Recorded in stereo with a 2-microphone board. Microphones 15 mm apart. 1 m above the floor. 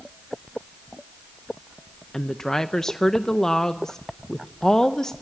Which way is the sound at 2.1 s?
45° left (ahead or behind).